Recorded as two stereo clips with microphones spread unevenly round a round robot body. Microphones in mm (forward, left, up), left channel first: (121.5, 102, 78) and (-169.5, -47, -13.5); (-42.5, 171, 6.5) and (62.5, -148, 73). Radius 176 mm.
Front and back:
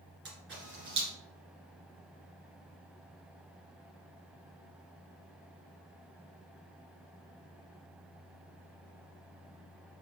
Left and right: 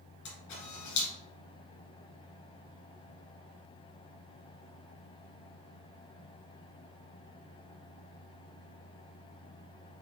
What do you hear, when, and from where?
0.2 s a camera shutter: 150° left, 2 m